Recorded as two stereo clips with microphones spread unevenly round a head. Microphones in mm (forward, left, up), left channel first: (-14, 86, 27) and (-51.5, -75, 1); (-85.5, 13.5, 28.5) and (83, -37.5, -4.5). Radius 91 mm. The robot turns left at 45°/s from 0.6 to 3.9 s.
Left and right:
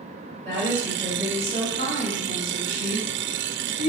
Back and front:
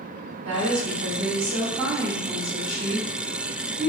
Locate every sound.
0.5 s a woman speaking: 5° left, 1.8 m; by 3.9 s 145° right, 1.8 m